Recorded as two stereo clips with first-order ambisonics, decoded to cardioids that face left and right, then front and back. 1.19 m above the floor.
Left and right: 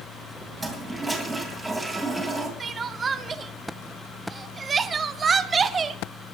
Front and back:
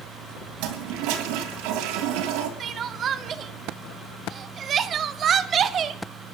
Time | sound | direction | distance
0.6 | a toilet flushing | straight behind | 2.5 m
2.6 | crying | 150° right | 0.8 m